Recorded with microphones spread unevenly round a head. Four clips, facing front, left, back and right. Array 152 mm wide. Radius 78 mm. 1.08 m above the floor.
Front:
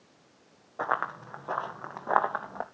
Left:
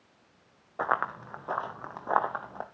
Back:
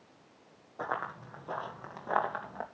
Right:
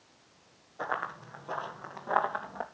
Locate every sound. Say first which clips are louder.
0.8 s running footsteps: left 5 dB, front 6 dB; 55° left, 3 m; by 2.6 s 20° left, 2.5 m